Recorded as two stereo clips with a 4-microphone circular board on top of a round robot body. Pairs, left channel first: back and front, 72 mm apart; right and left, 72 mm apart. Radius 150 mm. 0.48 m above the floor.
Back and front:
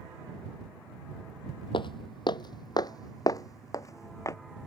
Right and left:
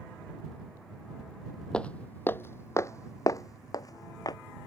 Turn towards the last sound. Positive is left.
turn(degrees=-130)